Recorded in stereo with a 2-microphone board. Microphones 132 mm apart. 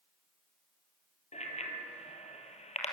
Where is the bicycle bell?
60° left (ahead or behind), 3 m.